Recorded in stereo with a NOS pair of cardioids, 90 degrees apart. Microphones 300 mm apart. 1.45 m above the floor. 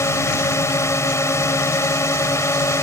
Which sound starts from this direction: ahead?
A drone, at 0.0 s.